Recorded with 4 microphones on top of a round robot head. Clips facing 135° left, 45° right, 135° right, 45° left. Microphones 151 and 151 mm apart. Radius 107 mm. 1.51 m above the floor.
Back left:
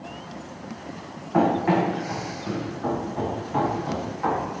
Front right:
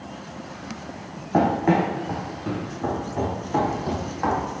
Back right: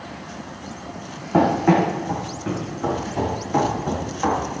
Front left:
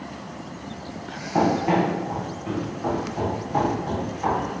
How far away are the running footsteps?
About 3.5 m.